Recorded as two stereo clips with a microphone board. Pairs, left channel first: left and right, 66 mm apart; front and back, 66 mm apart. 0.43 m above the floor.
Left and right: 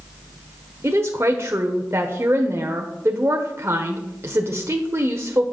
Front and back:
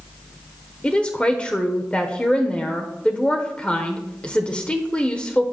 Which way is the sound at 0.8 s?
65° right.